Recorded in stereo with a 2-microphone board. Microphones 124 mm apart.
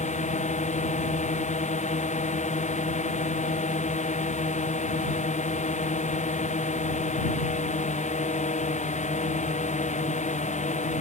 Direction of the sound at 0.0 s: 85° left.